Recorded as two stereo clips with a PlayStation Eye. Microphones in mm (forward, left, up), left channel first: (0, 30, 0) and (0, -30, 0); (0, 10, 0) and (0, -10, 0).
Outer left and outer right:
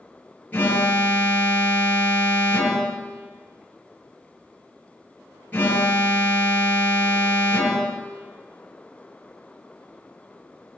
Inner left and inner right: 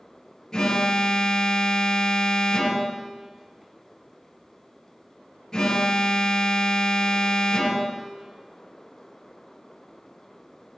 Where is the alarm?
30° left (ahead or behind), 5.5 m.